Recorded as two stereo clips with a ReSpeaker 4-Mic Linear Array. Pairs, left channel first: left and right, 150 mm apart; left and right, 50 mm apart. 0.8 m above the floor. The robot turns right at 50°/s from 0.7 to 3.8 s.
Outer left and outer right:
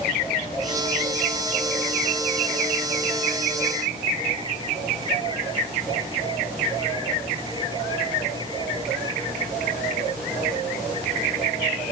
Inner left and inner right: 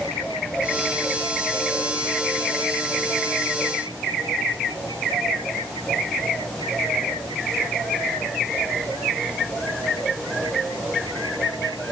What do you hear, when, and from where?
Only background noise.